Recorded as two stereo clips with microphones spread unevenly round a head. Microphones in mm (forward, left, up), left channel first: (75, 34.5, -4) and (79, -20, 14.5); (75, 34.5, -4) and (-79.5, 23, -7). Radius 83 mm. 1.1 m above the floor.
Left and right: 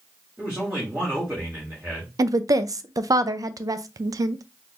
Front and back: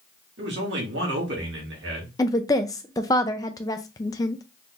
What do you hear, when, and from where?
0.4 s a man speaking: 170° right, 2 m
2.2 s a woman speaking: 65° right, 0.5 m